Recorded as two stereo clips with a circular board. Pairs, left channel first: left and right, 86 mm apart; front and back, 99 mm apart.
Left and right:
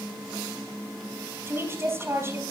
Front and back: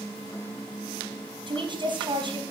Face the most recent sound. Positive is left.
turn(degrees=-150)